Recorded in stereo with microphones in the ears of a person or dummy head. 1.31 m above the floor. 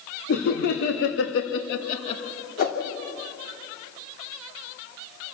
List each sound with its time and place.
0.3 s laughter: 60° left (ahead or behind), 2 m; by 2.2 s 25° left (ahead or behind), 1.0 m
2.6 s a whoosh: 60° left (ahead or behind), 2 m